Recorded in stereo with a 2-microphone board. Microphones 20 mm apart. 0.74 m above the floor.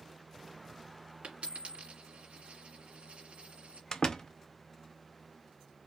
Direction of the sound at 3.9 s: 35° left (ahead or behind).